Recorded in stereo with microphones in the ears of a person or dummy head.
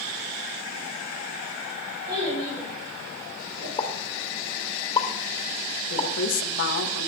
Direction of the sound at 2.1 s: 55° right (ahead or behind).